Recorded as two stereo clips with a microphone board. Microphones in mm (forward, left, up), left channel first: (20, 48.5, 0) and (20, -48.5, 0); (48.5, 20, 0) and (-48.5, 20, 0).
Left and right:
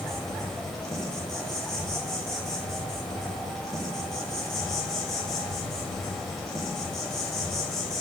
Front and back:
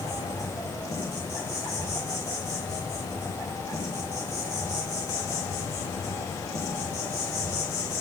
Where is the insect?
10° left, 1.0 m.